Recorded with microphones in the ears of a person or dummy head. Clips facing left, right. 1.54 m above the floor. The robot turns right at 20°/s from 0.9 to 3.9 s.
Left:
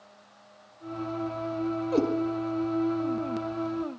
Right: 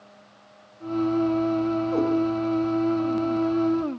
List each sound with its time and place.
1.9 s a cat meowing: 30° left (ahead or behind), 4.5 m; by 2.1 s 35° left (ahead or behind), 4.5 m